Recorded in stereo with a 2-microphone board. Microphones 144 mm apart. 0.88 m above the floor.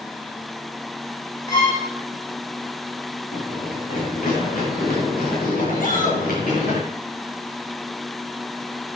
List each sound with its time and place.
1.5 s a violin: 25° left (ahead or behind), 4 m
3.3 s running footsteps: 60° left (ahead or behind), 5.5 m; by 6.8 s 85° left, 9.5 m
5.8 s a shout: 65° left (ahead or behind), 4.5 m